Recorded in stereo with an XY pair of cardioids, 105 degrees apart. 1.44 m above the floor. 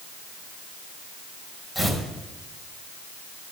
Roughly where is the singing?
No singing in this recording.